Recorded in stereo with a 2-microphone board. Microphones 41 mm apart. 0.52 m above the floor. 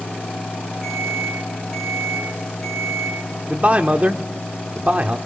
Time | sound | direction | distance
0.8 | an alarm | 10° left (ahead or behind) | 7 m
3.5 | a man speaking | 35° right (ahead or behind) | 1.0 m